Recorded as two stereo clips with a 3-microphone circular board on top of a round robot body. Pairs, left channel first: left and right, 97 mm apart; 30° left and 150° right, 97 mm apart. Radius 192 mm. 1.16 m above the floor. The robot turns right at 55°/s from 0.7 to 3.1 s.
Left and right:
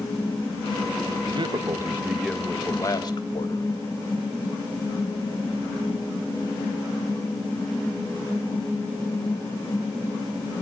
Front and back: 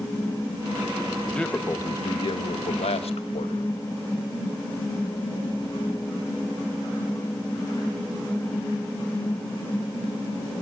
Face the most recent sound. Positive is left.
turn(degrees=45)